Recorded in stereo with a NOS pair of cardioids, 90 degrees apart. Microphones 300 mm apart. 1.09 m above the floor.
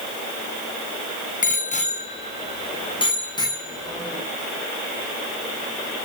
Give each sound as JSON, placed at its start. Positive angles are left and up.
{"t": 1.4, "sound": "a bicycle bell", "azimuth_deg": 25, "distance_m": 4.5}